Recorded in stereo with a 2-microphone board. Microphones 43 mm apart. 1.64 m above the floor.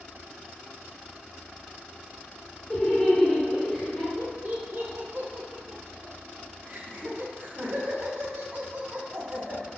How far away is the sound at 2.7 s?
About 1.2 m.